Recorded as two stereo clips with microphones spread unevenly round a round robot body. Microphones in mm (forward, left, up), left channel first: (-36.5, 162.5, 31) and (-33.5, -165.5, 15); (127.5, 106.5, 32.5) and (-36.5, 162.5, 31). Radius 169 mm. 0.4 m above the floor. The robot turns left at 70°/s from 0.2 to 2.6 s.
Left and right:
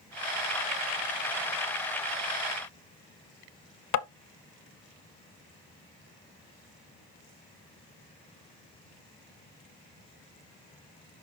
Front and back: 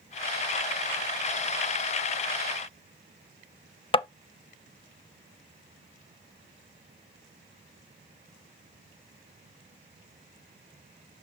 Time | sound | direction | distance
3.9 | tapping | 45° left | 0.6 m